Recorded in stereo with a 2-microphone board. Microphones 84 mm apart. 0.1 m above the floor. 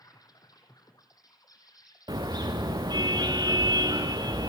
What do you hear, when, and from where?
0.0 s an insect: 50° left (ahead or behind), 3.5 m
2.1 s a car horn: 60° right (ahead or behind), 4.5 m